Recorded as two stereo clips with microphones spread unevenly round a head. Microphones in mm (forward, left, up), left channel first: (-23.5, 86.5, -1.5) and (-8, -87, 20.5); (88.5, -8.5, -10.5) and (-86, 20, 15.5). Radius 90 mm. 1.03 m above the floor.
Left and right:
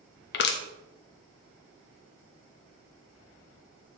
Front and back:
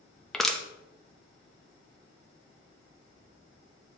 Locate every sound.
0.3 s crushing: 75° left, 0.8 m